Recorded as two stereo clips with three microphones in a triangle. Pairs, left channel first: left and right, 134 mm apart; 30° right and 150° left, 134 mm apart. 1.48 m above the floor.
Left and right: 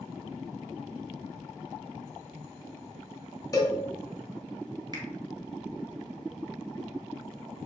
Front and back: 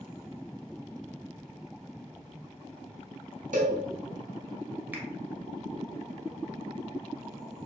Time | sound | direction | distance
3.5 | a cowbell | 150° left | 0.7 m
4.9 | a finger snap | 135° right | 0.7 m